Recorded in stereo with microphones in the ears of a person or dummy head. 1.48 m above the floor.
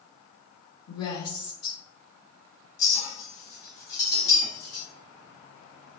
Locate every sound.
0.9 s a woman speaking: 60° left (ahead or behind), 1.2 m
2.8 s a clink: 55° left (ahead or behind), 1.5 m